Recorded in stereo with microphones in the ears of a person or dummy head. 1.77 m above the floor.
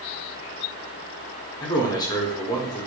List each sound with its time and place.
1.6 s a man speaking: 20° left (ahead or behind), 0.9 m